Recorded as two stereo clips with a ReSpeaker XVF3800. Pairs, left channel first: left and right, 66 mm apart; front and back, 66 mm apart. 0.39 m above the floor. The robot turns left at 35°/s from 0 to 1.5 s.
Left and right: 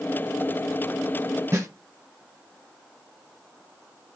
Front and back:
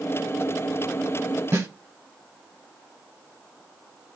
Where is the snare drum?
130° right, 0.8 m.